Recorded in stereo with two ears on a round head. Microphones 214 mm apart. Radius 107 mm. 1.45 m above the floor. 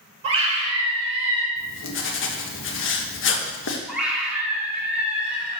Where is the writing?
55° left (ahead or behind), 1.4 m.